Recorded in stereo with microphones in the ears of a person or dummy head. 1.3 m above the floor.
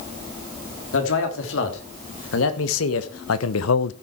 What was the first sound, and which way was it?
A man speaking, 80° left.